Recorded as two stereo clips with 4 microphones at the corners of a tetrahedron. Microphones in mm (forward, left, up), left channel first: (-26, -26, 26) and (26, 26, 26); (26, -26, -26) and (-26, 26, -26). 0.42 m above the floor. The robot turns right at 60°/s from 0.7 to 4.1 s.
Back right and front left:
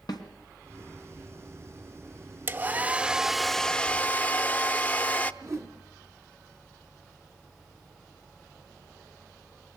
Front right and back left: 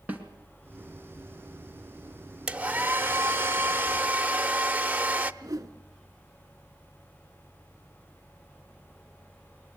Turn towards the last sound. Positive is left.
turn(degrees=90)